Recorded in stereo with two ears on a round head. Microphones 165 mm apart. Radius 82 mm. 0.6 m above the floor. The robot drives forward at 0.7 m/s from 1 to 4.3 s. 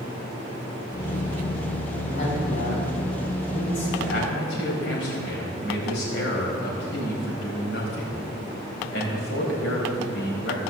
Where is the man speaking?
75° left (ahead or behind), 4 m.